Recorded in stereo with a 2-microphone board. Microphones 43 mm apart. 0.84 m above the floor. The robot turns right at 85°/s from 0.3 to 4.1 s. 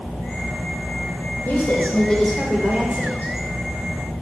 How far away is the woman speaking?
About 2.5 m.